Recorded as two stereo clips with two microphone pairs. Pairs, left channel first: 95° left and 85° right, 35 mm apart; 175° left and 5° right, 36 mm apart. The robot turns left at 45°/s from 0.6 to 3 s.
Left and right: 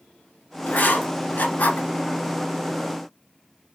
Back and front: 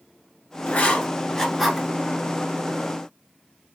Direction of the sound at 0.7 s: 125° left.